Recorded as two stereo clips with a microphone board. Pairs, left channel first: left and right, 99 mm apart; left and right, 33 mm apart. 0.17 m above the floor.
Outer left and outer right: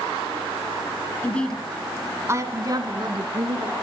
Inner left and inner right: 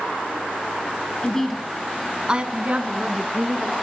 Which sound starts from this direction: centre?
A woman speaking, at 1.2 s.